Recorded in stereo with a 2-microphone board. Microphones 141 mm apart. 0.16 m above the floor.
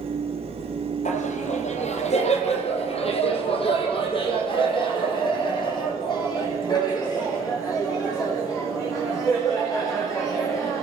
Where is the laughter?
60° left (ahead or behind), 4.5 m; by 10.8 s 25° left (ahead or behind), 13 m.